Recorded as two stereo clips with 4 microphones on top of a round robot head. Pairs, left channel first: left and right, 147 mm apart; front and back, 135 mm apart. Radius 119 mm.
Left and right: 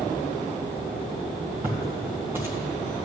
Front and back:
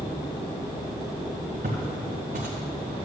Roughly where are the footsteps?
Behind.